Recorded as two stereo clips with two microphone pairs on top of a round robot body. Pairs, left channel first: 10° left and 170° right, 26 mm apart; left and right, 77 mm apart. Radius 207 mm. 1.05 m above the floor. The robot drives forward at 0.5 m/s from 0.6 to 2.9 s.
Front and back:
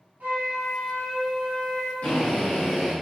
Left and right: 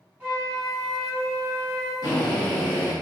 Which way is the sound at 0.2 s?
165° right.